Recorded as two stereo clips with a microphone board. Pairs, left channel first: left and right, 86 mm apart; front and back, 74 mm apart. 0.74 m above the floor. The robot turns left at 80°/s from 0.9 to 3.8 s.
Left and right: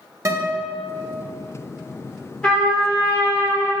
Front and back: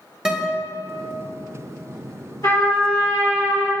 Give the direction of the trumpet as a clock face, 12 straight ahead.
12 o'clock.